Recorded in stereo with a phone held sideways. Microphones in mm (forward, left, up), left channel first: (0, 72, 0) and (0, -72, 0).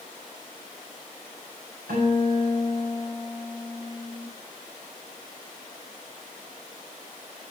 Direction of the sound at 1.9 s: 90° right.